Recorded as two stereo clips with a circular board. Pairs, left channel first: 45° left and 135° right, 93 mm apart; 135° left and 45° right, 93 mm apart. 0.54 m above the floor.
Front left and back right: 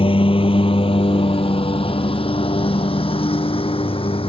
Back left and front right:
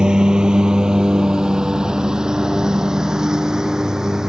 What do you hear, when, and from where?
0.0 s a lawn mower: 35° left; by 4.3 s 40° left